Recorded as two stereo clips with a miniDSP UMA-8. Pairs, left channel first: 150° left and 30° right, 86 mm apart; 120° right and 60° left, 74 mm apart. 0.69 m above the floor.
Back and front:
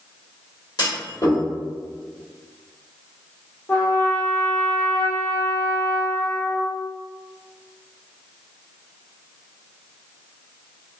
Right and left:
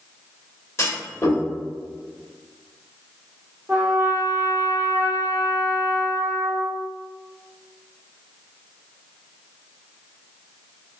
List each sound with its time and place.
0.8 s a clunk: 170° right, 1.5 m
3.7 s a trumpet: 110° left, 0.9 m